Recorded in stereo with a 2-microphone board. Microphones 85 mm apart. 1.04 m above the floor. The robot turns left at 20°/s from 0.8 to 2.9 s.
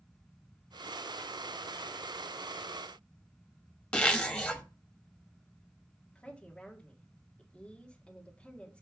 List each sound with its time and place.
3.9 s a zipper: 15° left (ahead or behind), 0.8 m
6.2 s a woman speaking: 15° left (ahead or behind), 1.7 m